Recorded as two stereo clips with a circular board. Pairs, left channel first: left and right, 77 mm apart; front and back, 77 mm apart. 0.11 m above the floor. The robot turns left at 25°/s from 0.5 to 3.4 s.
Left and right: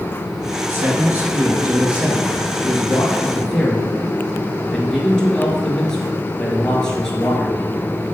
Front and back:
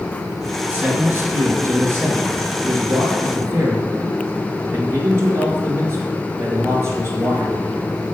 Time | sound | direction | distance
0.7 | a man speaking | 125° right | 2 m